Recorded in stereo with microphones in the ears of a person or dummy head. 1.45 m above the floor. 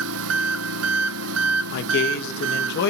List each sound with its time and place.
0.0 s an engine running: 80° right, 0.9 m
1.7 s a man speaking: 70° left (ahead or behind), 1.9 m